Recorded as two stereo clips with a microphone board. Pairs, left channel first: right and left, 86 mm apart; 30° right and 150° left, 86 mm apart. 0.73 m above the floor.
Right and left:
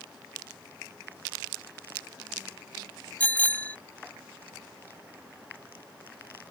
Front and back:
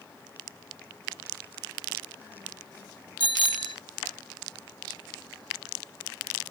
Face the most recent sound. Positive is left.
turn(degrees=-20)